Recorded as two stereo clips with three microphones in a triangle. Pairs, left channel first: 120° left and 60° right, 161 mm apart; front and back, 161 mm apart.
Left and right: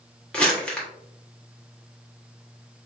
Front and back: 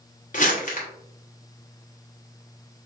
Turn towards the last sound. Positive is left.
turn(degrees=35)